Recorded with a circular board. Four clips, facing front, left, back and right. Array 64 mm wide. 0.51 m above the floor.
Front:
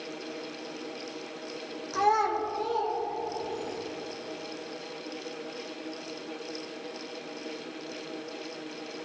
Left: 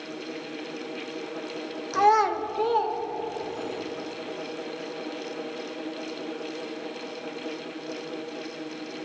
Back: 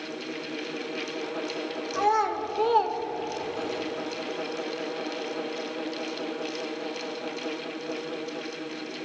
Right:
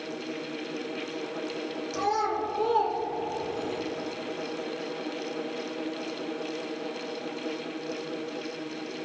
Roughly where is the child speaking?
Left.